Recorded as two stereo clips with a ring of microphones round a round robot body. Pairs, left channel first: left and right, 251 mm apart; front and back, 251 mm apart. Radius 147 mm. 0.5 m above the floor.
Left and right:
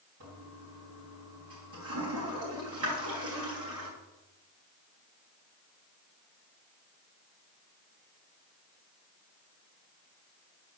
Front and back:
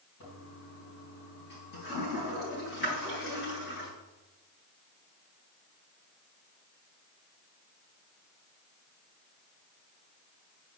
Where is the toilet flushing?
50° right, 4 m.